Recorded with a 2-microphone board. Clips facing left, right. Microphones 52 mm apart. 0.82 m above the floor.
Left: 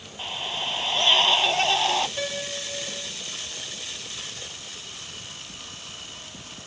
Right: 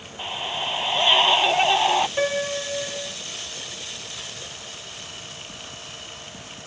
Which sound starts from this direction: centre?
A scream, at 0.2 s.